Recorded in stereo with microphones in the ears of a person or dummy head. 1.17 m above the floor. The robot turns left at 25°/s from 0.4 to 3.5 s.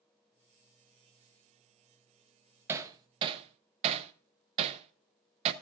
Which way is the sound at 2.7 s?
15° right (ahead or behind).